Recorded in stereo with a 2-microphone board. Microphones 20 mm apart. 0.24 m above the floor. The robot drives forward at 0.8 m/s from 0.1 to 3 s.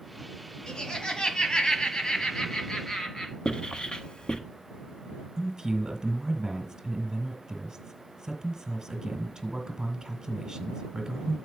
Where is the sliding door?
No sliding door in this recording.